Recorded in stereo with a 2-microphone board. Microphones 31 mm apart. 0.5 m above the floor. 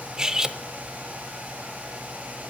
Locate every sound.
0.2 s cutlery clinking: 20° right (ahead or behind), 0.5 m